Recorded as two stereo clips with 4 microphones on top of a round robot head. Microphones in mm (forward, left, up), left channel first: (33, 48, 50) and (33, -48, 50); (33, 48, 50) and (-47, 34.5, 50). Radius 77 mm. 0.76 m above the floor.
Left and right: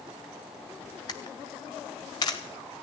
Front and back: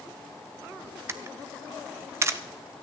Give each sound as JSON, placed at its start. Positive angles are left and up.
{"t": 1.1, "sound": "a camera shutter", "azimuth_deg": 145, "distance_m": 0.6}